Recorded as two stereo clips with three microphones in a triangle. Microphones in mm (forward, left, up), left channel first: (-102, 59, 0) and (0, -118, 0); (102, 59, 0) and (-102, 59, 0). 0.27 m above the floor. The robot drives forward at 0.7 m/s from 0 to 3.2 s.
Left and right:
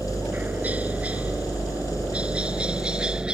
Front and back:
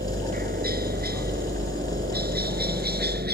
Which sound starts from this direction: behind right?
A helicopter, at 0.0 s.